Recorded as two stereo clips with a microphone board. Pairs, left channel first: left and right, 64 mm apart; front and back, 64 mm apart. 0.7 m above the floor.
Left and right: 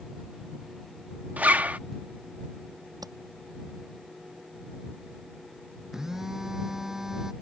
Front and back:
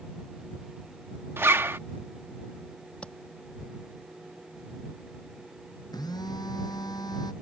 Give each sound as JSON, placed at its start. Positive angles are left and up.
{"t": 1.4, "sound": "a zipper", "azimuth_deg": -145}
{"t": 3.0, "sound": "tapping", "azimuth_deg": -75}
{"t": 5.9, "sound": "a phone buzzing", "azimuth_deg": -5}